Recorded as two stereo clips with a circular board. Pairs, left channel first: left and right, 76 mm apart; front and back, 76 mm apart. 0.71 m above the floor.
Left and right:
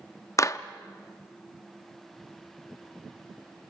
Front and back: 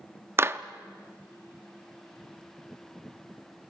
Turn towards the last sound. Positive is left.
turn(degrees=130)